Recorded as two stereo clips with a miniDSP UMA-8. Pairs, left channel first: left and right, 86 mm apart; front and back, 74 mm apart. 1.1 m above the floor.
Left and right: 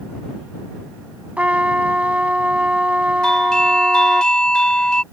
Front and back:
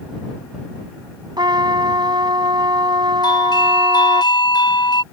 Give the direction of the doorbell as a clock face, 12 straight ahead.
12 o'clock.